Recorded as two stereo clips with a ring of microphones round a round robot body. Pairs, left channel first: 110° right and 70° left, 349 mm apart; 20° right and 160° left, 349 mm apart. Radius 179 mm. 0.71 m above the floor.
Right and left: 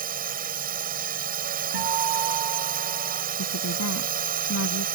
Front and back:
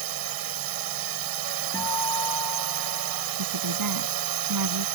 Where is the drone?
135° left.